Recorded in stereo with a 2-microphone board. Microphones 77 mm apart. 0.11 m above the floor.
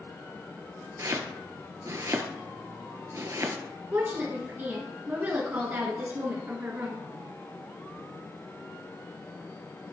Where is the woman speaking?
25° right (ahead or behind), 1.2 m.